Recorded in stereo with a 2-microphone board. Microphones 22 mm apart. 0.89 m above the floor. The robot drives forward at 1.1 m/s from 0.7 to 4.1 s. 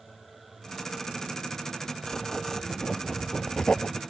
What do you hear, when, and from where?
2.0 s writing: 25° left (ahead or behind); by 4.0 s 40° left (ahead or behind)